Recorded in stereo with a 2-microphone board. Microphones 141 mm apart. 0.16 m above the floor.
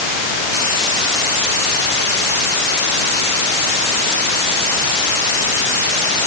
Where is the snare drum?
I don't hear a snare drum.